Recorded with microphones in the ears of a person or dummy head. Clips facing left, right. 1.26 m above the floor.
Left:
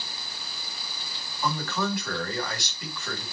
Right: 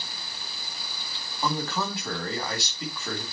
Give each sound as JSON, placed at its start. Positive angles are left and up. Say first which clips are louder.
{"t": 1.4, "sound": "a man speaking", "louder": "even", "side_deg": -25, "distance_m": 3.5}